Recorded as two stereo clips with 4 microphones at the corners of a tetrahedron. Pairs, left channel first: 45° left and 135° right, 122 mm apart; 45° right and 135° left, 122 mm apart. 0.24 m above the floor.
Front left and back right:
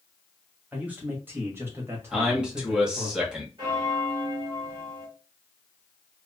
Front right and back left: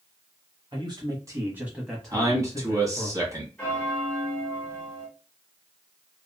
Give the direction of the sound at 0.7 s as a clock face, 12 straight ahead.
7 o'clock.